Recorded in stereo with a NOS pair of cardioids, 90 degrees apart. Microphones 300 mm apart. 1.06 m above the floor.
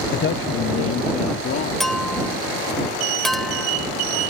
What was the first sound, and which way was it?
A man speaking, 35° left.